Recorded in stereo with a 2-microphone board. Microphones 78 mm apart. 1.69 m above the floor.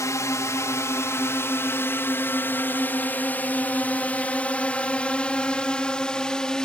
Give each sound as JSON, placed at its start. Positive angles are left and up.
{"t": 0.0, "sound": "a drone", "side_deg": 45}